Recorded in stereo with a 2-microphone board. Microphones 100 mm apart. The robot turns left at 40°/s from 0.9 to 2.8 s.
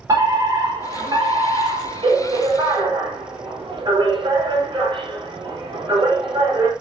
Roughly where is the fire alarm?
Ahead right.